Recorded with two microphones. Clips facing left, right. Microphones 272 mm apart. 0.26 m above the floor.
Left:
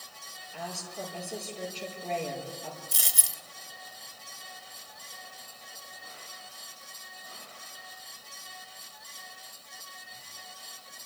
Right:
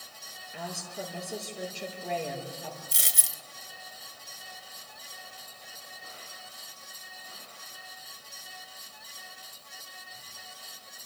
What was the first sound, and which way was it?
A woman speaking, 20° right (ahead or behind).